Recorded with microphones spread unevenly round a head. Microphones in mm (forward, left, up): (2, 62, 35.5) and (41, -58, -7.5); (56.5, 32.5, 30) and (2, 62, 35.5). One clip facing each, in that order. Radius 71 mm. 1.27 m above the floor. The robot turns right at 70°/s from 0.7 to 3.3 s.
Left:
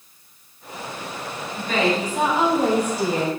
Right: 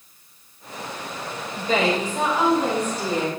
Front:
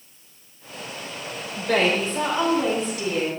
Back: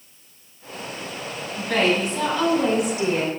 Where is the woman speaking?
15° right, 5.5 m; by 3.3 s 105° left, 5.5 m.